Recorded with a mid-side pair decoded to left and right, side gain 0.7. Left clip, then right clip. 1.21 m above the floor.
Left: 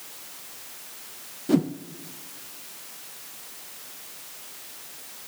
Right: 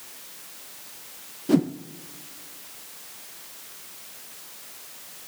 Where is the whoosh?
10° right, 0.5 m.